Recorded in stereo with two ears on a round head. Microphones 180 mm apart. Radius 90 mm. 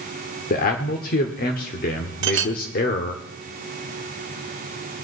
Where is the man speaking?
45° left (ahead or behind), 1.2 m.